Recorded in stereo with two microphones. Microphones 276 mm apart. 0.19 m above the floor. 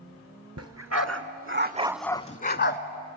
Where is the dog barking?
70° right (ahead or behind), 1.3 m; by 2.8 s 45° left (ahead or behind), 1.0 m.